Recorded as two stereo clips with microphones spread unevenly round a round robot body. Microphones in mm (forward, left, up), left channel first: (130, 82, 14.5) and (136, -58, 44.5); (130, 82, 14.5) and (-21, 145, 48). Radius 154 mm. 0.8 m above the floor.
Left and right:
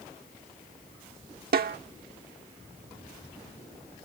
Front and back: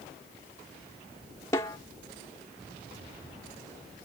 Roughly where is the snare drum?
Right.